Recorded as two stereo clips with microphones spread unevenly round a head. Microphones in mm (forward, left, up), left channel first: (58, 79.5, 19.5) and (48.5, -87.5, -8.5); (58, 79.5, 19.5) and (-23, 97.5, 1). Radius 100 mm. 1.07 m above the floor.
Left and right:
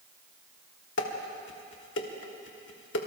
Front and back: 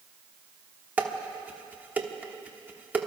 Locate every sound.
1.0 s dishes clattering: 95° left, 1.6 m